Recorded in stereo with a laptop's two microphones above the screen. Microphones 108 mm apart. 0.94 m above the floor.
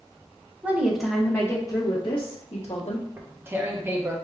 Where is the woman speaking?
15° right (ahead or behind), 0.8 m; by 3.1 s 70° left (ahead or behind), 1.2 m.